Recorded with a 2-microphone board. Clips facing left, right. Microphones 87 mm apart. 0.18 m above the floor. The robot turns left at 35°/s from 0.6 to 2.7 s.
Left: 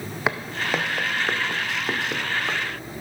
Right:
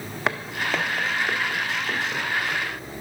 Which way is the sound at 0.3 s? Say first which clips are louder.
Left 1 dB; centre (ahead or behind).